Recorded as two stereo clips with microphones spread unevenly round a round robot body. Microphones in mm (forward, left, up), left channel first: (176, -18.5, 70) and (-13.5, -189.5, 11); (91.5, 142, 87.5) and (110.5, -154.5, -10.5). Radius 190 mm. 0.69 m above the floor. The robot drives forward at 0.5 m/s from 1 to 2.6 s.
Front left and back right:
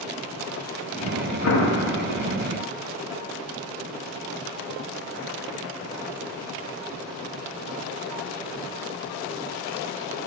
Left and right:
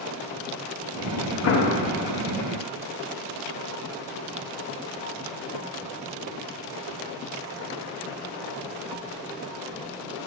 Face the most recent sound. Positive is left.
turn(degrees=95)